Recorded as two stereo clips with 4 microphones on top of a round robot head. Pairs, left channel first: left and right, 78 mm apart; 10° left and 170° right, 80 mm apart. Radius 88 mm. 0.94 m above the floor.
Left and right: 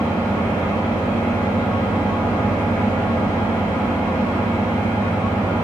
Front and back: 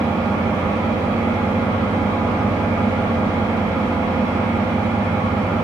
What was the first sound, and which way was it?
An engine running, 145° left.